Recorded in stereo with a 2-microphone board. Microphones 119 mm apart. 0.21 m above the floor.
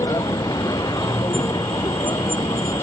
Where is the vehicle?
35° left (ahead or behind).